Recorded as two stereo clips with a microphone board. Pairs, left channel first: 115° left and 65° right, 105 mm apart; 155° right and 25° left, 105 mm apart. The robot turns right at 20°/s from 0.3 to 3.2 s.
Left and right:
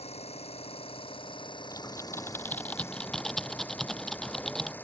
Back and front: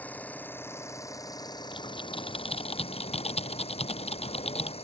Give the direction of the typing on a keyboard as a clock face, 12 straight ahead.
6 o'clock.